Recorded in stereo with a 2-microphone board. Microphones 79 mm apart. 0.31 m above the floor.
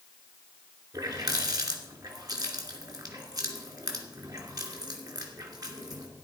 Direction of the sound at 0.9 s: 55° right (ahead or behind).